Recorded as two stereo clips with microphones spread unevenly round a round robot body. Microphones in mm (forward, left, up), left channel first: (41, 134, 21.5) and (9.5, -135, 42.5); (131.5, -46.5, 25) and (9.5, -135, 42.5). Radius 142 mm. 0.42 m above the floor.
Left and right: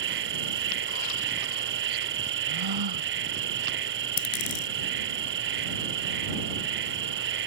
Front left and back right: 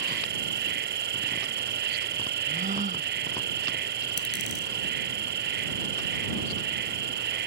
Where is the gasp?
110° right.